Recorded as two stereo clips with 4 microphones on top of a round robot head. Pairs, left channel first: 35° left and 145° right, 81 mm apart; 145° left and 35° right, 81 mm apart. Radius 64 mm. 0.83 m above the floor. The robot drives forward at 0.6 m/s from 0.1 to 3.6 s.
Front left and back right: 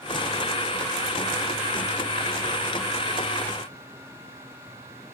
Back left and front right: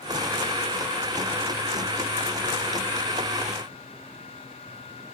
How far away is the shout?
No shout in this recording.